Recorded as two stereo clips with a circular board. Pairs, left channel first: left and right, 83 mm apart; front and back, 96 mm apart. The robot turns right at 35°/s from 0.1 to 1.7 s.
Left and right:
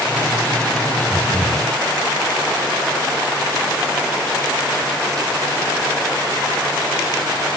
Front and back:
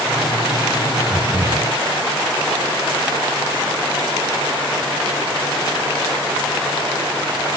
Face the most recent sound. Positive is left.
turn(degrees=-65)